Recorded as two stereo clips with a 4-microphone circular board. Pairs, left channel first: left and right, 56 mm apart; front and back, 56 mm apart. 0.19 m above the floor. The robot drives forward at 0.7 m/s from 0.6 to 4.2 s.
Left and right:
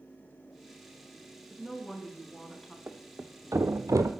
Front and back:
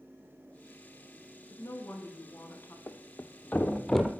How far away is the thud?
About 1.0 m.